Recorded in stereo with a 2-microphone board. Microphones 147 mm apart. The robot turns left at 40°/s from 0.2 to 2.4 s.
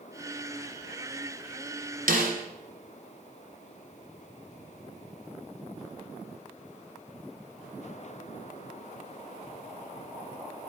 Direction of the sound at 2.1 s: 75° right (ahead or behind).